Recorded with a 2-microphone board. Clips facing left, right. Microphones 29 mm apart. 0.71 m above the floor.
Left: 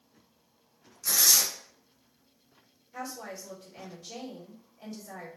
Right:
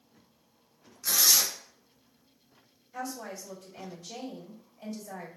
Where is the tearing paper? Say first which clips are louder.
Even; 20° right (ahead or behind), 0.8 m.